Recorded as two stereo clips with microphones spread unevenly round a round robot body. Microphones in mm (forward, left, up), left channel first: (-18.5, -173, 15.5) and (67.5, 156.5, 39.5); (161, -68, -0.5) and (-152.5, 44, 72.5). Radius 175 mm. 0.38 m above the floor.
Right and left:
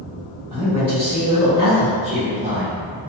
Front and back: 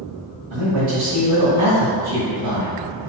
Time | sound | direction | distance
0.5 | a man speaking | 150° left | 2.0 m